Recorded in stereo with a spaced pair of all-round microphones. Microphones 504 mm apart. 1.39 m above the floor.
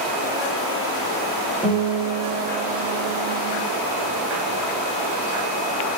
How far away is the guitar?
About 3.5 m.